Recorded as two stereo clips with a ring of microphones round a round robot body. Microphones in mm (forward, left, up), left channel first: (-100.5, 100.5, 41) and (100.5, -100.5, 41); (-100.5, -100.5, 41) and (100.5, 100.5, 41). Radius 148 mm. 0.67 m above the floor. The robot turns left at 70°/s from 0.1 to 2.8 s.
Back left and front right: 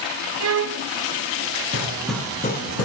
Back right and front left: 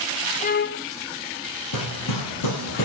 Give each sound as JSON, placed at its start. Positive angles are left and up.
{"t": 0.4, "sound": "a violin", "azimuth_deg": -70, "distance_m": 0.6}
{"t": 1.7, "sound": "hammering", "azimuth_deg": -110, "distance_m": 3.5}